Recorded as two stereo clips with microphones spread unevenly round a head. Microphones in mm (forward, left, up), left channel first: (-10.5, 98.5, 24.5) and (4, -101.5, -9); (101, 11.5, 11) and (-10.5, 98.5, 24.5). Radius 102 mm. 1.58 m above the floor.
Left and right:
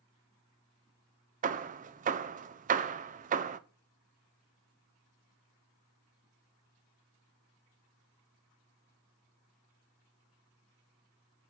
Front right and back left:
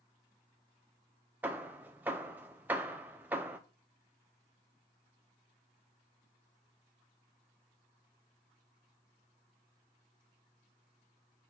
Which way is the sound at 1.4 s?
140° right.